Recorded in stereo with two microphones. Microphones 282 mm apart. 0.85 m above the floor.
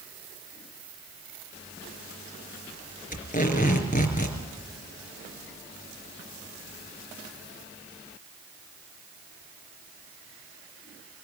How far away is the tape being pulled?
About 4 m.